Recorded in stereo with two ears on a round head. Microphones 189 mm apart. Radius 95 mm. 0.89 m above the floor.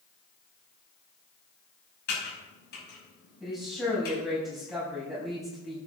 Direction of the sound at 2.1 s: 50° left (ahead or behind).